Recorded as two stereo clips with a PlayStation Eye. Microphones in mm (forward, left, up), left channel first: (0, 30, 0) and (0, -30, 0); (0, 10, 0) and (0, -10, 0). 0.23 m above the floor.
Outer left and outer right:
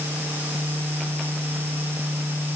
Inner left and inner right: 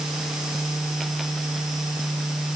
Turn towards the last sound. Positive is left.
No sound to turn to.